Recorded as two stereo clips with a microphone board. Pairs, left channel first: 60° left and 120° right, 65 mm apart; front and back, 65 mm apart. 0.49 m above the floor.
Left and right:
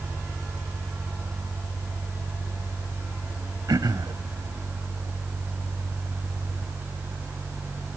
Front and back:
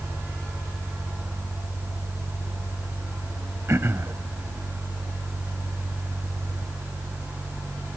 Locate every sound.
3.7 s throat clearing: 130° right, 0.7 m